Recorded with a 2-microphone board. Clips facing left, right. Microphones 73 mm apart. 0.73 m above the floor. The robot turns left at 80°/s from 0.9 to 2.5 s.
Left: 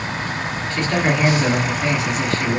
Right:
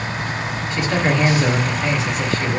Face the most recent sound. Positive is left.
turn(degrees=65)